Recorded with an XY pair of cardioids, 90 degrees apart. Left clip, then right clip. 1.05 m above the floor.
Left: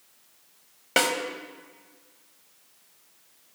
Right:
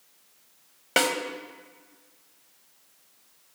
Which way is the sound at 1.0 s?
10° right.